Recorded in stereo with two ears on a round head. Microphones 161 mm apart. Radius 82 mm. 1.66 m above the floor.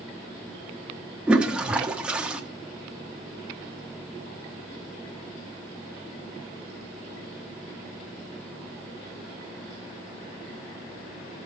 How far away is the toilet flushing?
About 1.3 m.